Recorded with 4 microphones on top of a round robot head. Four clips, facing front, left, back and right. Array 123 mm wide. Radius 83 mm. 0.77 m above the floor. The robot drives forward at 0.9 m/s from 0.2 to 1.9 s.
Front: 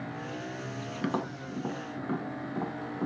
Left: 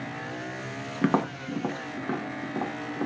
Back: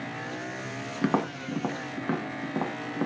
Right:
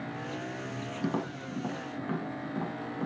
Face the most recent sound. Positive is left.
turn(degrees=160)